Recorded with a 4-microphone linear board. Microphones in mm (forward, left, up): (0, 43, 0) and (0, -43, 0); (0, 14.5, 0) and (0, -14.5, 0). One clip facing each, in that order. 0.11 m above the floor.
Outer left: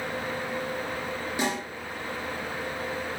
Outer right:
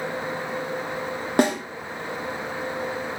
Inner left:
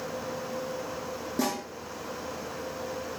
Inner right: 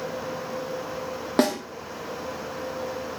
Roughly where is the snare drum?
Right.